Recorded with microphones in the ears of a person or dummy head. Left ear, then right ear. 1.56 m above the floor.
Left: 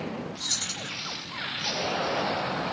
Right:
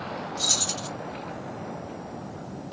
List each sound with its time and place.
0.4 s keys jangling: 70° right (ahead or behind), 1.8 m